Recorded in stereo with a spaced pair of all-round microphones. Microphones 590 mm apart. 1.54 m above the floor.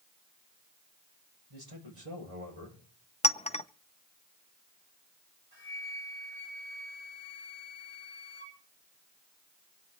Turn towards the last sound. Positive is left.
turn(degrees=-55)  # may be behind; listen again after turning